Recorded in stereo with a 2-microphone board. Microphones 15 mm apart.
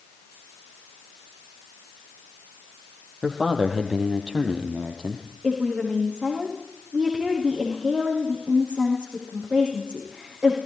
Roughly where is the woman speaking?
Right.